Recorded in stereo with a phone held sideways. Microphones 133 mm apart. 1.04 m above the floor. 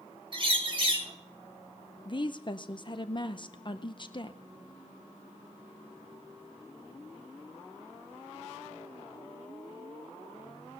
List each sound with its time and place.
0.3 s a bird: 40° right (ahead or behind), 1.7 m
2.0 s a woman speaking: 40° left (ahead or behind), 0.6 m